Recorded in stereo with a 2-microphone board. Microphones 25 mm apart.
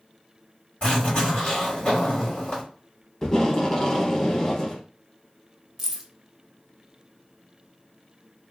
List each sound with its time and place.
0.8 s a zipper: 40° left (ahead or behind), 1.8 m
3.2 s tape being pulled: 25° left (ahead or behind), 0.7 m
5.8 s keys jangling: 10° right (ahead or behind), 0.6 m